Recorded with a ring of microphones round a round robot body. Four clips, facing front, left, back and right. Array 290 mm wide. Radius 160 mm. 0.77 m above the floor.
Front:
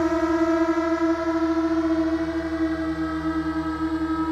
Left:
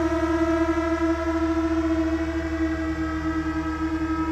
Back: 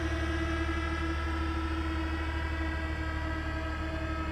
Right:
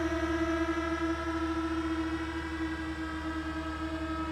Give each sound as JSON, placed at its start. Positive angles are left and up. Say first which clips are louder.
{"t": 0.0, "sound": "a drone", "louder": "left 9 dB, front 14 dB", "azimuth_deg": 30}